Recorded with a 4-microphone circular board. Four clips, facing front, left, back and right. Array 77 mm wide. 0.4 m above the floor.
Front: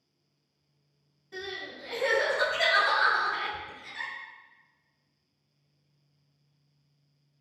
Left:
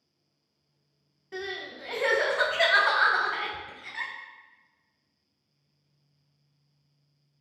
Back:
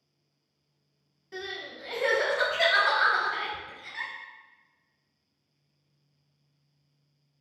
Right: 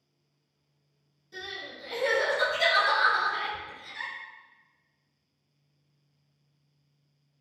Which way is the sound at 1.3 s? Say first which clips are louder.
Left 5 dB, back 1 dB; 110° left.